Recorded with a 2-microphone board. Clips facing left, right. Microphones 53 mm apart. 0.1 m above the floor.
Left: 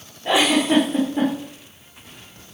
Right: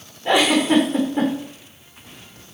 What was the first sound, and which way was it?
A giggle, 5° left (ahead or behind).